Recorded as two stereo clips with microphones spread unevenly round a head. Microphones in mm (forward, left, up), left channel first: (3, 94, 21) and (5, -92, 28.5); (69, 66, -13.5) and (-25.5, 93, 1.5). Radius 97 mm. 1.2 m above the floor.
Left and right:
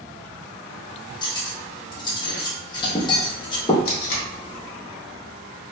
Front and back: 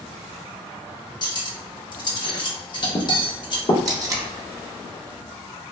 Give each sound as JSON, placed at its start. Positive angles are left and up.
{"t": 1.2, "sound": "cutlery clinking", "azimuth_deg": 25, "distance_m": 0.7}
{"t": 3.9, "sound": "tape being pulled", "azimuth_deg": 125, "distance_m": 0.7}